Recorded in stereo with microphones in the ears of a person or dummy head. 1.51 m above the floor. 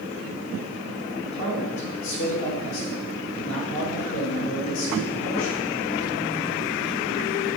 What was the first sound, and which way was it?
A man speaking, 80° left.